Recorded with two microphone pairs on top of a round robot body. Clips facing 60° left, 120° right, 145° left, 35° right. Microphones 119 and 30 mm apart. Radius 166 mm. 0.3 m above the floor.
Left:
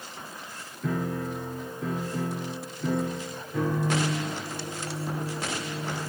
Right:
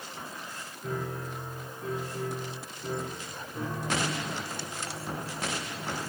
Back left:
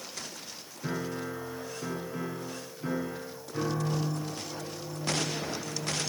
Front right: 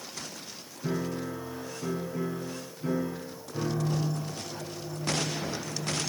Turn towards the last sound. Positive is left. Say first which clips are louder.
# left 6 dB, front right 2 dB
turn(degrees=70)